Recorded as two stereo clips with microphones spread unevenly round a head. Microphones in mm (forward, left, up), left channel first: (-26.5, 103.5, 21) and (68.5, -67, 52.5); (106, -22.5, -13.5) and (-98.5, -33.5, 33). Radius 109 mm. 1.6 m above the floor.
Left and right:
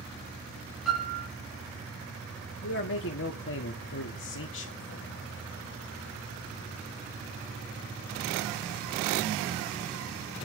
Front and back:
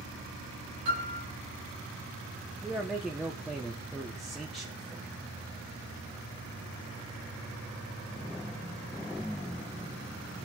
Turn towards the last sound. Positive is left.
turn(degrees=95)